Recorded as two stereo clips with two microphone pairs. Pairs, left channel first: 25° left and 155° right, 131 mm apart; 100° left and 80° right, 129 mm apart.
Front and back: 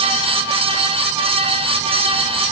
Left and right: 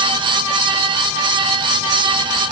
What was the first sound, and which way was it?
Only background noise.